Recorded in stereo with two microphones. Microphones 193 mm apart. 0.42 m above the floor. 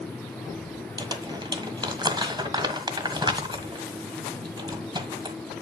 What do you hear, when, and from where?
1.0 s crumpling: 25° right (ahead or behind), 1.5 m